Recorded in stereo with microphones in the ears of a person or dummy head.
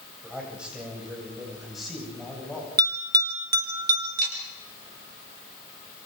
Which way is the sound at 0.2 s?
10° right (ahead or behind).